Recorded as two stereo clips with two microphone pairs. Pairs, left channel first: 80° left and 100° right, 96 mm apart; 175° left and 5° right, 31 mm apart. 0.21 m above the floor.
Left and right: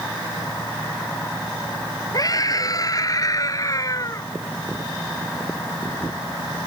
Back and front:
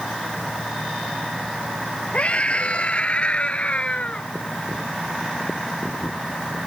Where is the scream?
125° left.